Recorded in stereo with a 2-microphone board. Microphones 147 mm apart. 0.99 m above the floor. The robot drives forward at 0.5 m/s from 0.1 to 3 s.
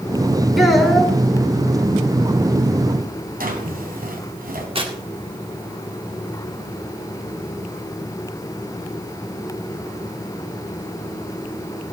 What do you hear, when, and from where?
0.6 s a child speaking: centre (ahead or behind), 2 m
3.4 s a drawer: 75° right (ahead or behind), 2.5 m
4.8 s tearing paper: 35° right (ahead or behind), 1.9 m